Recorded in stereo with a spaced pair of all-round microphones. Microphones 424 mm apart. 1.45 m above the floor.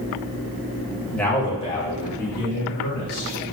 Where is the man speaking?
Centre (ahead or behind), 1.7 m; by 3.4 s 30° left (ahead or behind), 4.5 m.